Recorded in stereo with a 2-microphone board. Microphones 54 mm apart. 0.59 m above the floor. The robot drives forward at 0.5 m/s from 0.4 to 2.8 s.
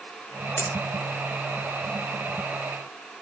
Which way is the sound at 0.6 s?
40° left (ahead or behind).